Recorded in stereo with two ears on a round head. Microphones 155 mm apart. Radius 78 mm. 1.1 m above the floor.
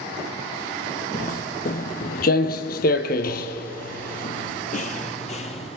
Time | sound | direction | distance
1.1 | footsteps | 50° left (ahead or behind) | 2.5 m